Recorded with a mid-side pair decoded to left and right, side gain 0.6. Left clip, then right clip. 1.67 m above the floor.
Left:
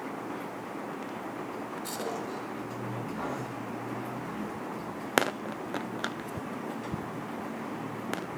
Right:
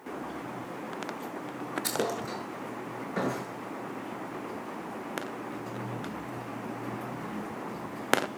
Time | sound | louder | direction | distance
1.8 | a thud | right 5 dB | 60° right | 8.5 m